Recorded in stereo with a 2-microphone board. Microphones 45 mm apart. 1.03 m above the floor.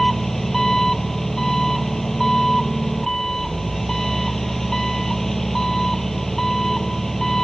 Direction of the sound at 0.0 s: 5° left (ahead or behind).